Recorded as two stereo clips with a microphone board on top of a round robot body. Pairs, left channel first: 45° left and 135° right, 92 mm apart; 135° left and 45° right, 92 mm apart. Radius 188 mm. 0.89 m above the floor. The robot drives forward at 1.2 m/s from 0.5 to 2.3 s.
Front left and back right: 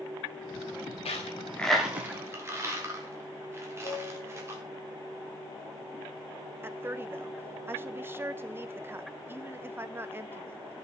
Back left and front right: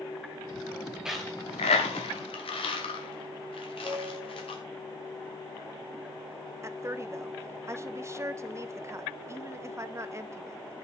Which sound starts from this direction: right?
A woman speaking, at 6.6 s.